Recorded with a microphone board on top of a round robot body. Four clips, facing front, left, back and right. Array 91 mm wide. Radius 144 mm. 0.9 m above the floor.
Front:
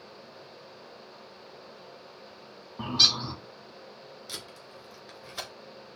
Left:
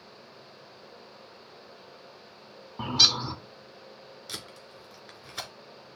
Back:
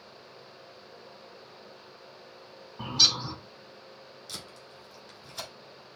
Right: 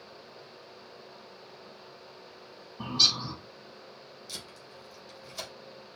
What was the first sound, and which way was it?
A bird, 70° left.